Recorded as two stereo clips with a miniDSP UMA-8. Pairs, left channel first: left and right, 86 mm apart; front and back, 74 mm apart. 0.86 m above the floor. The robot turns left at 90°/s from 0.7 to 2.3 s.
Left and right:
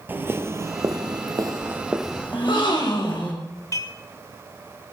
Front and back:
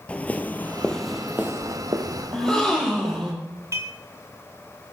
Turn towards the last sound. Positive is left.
turn(degrees=135)